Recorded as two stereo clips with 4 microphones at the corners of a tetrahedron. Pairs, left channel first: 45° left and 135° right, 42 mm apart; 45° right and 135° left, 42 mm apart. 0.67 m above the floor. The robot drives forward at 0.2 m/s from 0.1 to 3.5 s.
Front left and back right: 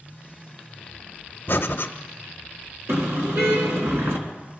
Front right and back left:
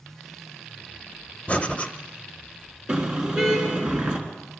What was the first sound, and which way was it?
Breathing, 10° left.